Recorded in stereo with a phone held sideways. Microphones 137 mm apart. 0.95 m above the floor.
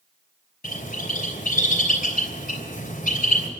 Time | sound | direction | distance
0.6 | a bird | 90° left | 3 m